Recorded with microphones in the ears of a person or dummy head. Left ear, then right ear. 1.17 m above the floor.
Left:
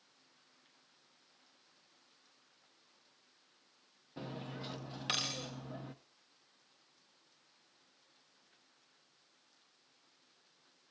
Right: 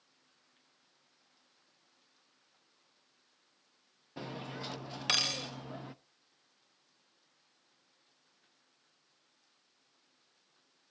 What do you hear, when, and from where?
4.2 s cutlery clinking: 25° right (ahead or behind), 0.6 m